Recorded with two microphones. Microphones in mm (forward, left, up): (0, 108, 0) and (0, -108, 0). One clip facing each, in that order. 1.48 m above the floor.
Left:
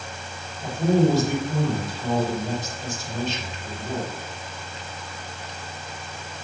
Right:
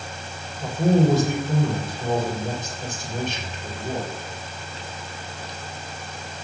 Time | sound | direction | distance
0.6 | a man speaking | 60° right (ahead or behind) | 5.5 m